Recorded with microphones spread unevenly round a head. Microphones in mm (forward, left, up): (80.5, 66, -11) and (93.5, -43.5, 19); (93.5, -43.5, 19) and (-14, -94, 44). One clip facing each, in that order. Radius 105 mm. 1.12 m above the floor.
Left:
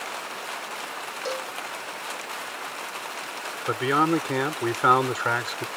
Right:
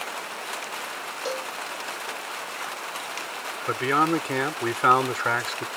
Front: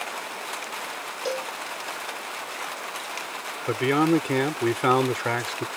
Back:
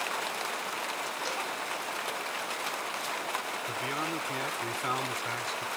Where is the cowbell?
5° left.